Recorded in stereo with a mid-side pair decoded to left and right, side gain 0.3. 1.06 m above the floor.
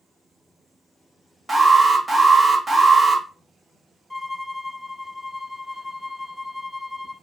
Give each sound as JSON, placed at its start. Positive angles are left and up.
{"t": 1.5, "sound": "an alarm", "azimuth_deg": -25, "distance_m": 1.3}
{"t": 4.1, "sound": "a violin", "azimuth_deg": 5, "distance_m": 0.7}